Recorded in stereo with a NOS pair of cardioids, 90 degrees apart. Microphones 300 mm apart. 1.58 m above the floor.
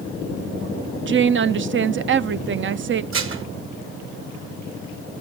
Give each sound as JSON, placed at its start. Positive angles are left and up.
{"t": 1.1, "sound": "a woman speaking", "azimuth_deg": -40, "distance_m": 0.8}
{"t": 3.1, "sound": "dishes clattering", "azimuth_deg": -45, "distance_m": 1.7}